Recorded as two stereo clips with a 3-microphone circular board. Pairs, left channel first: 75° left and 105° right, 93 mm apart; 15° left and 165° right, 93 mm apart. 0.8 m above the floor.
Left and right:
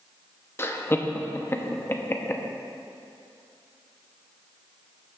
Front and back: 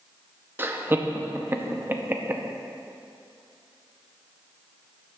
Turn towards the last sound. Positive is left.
turn(degrees=135)